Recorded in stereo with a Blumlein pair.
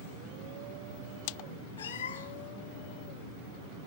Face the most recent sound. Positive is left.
turn(degrees=65)